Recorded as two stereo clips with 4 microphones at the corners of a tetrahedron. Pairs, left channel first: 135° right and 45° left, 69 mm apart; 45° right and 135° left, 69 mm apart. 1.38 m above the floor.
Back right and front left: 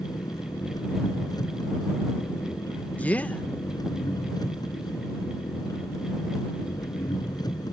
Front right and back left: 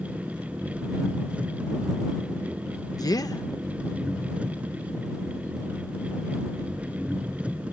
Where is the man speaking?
65° right.